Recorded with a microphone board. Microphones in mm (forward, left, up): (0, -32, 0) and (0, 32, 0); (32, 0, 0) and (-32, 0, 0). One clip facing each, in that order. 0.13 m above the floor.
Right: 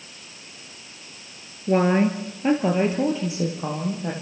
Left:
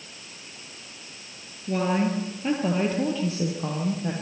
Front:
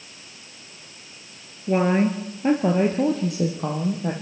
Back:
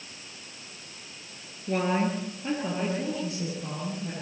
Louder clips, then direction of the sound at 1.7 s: Right 5 dB, front 6 dB; 60° right.